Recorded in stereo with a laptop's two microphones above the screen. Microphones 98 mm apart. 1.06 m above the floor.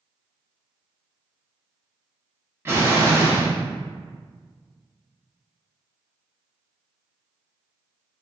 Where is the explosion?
25° right (ahead or behind), 0.6 m.